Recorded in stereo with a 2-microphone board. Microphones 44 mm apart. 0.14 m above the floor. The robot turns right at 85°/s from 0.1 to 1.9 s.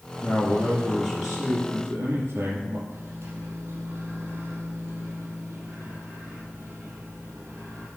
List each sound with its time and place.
0.2 s a man speaking: 100° left, 4 m; by 2.8 s 115° right, 4 m
2.9 s a microwave: 60° right (ahead or behind), 4 m